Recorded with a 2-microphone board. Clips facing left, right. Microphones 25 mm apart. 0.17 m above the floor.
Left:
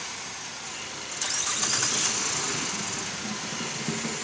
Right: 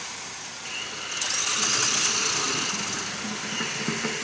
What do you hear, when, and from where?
0.7 s a hiss: 50° right (ahead or behind), 1.4 m